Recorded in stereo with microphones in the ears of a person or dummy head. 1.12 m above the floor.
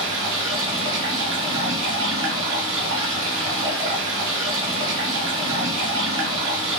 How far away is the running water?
About 1.3 m.